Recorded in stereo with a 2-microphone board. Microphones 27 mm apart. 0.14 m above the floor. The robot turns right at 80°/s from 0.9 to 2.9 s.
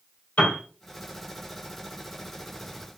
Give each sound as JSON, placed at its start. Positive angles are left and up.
{"t": 0.4, "sound": "a piano", "side_deg": 70, "distance_m": 1.7}